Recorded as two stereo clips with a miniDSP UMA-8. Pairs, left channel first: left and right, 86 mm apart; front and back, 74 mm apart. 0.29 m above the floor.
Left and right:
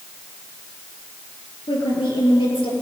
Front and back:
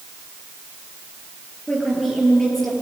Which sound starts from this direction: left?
A woman speaking, at 1.7 s.